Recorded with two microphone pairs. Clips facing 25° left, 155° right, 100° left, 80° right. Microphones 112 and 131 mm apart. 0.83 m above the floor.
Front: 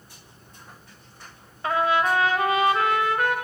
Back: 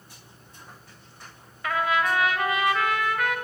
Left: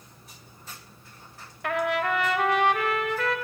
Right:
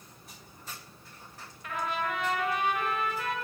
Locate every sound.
1.6 s a trumpet: 85° left, 2 m